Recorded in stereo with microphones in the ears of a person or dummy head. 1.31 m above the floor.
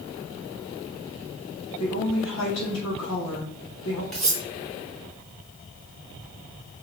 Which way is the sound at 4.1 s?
Centre (ahead or behind).